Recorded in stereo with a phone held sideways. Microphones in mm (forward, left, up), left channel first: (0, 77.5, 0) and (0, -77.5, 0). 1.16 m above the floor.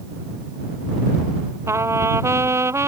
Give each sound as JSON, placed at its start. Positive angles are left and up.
{"t": 1.7, "sound": "a trumpet", "side_deg": -15}